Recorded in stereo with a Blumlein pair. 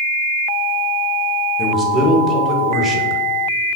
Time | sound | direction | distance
1.6 | a man speaking | 5° right | 1.1 m